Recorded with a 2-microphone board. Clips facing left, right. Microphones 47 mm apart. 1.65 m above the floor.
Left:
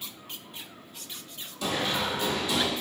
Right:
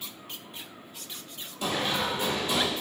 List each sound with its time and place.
1.6 s running footsteps: 20° right (ahead or behind), 1.8 m; by 2.7 s 30° right (ahead or behind), 1.9 m